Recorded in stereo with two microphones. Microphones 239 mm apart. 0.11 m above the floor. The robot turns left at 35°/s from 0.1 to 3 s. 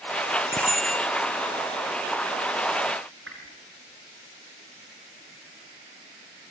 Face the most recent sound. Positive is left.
turn(degrees=-60)  # may be behind; listen again after turning